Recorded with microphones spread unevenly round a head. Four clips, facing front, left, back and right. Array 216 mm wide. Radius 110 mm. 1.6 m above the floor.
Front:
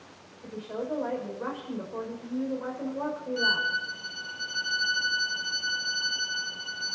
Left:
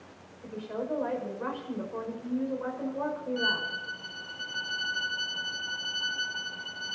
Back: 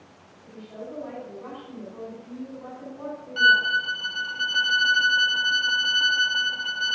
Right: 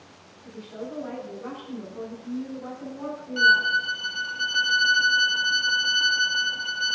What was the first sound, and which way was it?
A woman speaking, 35° left.